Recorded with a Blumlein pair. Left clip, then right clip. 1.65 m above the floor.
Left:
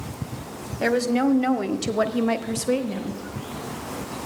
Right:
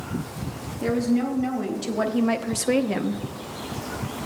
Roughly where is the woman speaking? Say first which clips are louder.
Left 3 dB; ahead left.